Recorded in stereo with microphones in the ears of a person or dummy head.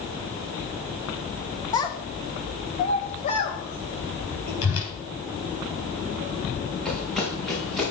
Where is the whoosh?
80° left, 5 m.